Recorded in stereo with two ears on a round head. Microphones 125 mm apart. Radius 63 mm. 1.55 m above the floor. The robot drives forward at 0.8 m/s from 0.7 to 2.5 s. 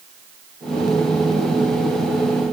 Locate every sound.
Only background noise.